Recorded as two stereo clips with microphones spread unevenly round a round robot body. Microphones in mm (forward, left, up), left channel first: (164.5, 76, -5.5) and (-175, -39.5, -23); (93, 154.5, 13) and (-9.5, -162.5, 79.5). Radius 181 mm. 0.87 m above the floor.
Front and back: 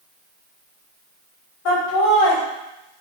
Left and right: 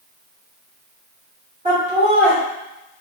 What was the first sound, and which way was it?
Laughter, 35° right.